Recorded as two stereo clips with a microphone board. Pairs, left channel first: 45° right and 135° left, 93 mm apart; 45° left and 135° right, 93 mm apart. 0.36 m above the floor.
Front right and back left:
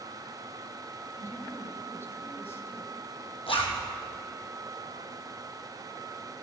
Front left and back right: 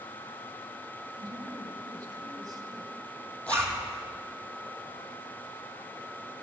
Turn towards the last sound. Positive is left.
turn(degrees=-30)